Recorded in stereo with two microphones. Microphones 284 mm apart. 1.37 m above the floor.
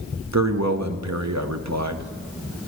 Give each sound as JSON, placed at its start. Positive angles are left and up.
{"t": 0.3, "sound": "a man speaking", "side_deg": -70, "distance_m": 0.8}